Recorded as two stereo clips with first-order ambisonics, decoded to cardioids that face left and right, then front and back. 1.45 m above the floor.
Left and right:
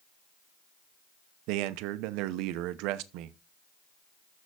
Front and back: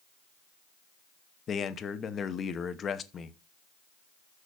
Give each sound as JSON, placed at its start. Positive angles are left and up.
{"t": 1.5, "sound": "a man speaking", "azimuth_deg": -65, "distance_m": 0.8}